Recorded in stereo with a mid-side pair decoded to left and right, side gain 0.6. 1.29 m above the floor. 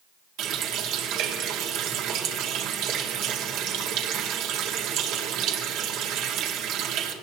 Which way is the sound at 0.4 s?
70° right.